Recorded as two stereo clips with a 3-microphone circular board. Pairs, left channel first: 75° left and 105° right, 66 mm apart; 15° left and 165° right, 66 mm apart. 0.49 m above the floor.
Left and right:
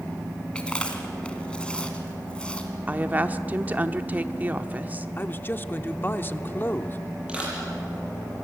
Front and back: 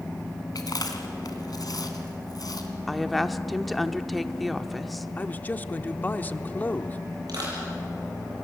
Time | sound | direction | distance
0.6 | chewing | straight ahead | 2 m
2.9 | a woman speaking | 75° right | 0.8 m
5.2 | a man speaking | 55° left | 0.7 m
7.3 | crushing | straight behind | 9 m